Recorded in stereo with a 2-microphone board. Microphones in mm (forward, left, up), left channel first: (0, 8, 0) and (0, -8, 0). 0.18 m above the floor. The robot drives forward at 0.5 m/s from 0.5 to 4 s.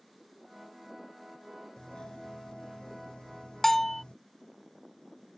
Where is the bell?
25° left (ahead or behind); by 4.0 s 20° left (ahead or behind).